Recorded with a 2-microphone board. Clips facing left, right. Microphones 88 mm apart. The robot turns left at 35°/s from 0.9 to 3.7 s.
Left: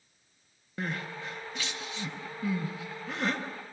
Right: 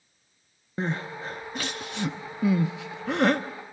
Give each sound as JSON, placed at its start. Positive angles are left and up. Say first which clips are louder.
{"t": 0.8, "sound": "crying", "louder": "right 5 dB", "side_deg": -25, "distance_m": 1.0}